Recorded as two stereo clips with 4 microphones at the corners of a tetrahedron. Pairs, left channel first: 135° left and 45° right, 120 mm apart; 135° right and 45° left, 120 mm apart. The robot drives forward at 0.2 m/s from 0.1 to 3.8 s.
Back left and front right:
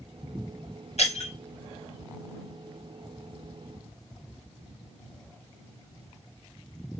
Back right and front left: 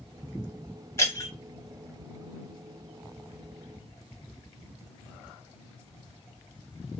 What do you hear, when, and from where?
1.0 s breaking glass: 160° left, 1.1 m